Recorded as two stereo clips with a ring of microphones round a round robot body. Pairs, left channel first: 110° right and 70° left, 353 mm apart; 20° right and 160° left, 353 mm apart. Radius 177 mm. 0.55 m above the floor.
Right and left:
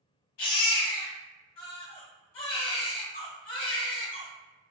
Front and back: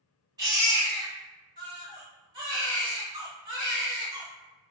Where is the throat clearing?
I don't hear throat clearing.